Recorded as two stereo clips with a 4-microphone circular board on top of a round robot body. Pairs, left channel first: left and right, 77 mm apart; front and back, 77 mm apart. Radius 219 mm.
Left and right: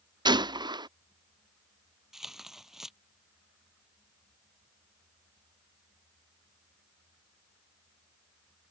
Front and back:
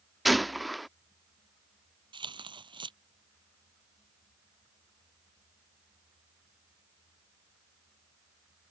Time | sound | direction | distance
0.2 | a gunshot | 90° right | ?
2.1 | tearing paper | 175° right | ?